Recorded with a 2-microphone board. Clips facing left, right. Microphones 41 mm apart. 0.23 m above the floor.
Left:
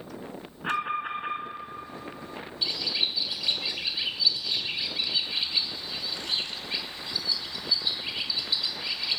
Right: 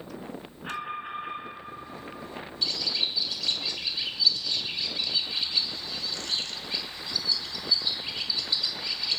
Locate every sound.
0.6 s an alarm: 30° left (ahead or behind), 1.5 m
2.6 s a bird: 15° left (ahead or behind), 0.6 m